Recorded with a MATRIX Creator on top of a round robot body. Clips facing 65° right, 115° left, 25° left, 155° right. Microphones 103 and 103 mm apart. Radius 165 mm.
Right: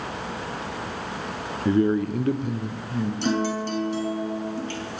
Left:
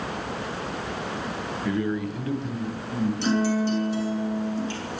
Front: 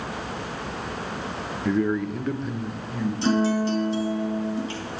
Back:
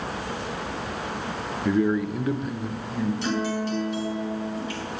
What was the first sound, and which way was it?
A man speaking, 75° right.